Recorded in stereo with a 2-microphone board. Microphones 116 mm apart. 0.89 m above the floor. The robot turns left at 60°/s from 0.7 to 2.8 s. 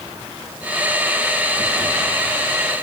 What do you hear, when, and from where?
Only background noise.